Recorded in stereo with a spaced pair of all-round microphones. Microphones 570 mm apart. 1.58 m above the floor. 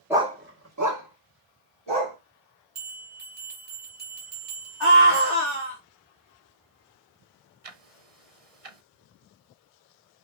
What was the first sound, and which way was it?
A dog barking, 5° right (ahead or behind).